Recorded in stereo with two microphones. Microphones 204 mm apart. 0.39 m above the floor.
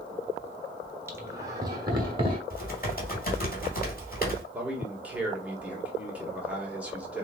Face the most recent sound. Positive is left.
turn(degrees=-5)  # may be behind; listen again after turning